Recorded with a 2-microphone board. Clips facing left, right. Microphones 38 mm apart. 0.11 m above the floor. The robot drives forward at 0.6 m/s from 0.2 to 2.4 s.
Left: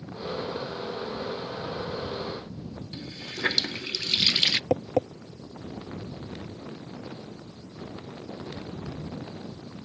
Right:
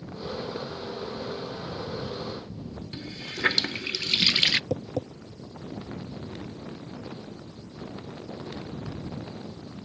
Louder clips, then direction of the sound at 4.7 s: Left 5 dB; 55° left (ahead or behind).